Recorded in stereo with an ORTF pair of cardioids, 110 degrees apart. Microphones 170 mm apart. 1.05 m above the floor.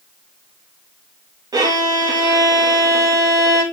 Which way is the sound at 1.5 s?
25° right.